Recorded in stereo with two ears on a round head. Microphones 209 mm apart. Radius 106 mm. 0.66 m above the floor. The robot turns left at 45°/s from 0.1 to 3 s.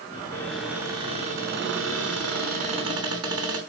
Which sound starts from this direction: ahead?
A cupboard door, at 0.1 s.